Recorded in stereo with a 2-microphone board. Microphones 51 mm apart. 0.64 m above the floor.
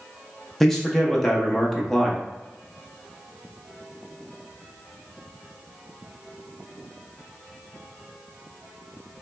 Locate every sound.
0.6 s a man speaking: 5° left (ahead or behind), 0.5 m